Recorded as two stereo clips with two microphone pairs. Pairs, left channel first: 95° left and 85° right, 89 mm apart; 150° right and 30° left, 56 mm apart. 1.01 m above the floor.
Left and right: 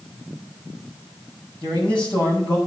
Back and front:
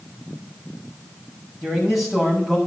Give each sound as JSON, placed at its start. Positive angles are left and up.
{"t": 1.6, "sound": "a man speaking", "azimuth_deg": 115, "distance_m": 6.5}